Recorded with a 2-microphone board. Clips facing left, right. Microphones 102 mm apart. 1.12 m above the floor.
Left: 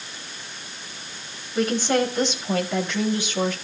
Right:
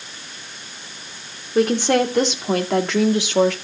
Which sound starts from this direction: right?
A woman speaking, at 1.6 s.